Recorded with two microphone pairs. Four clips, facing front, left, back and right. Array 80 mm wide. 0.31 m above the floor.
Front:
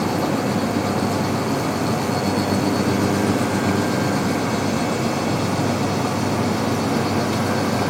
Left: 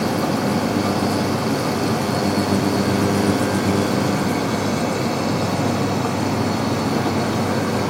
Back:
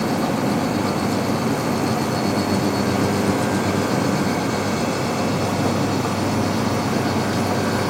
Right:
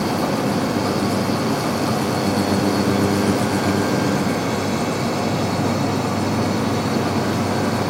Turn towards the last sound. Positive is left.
No sound to turn to.